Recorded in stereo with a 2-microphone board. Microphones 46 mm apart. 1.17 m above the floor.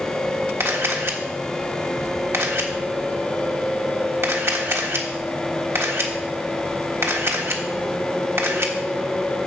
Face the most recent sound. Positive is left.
turn(degrees=-65)  # may be behind; listen again after turning